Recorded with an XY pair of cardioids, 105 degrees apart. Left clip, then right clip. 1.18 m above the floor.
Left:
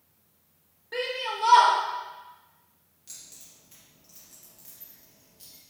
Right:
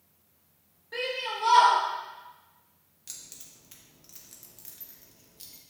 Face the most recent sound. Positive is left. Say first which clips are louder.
# right 2 dB
turn(degrees=-45)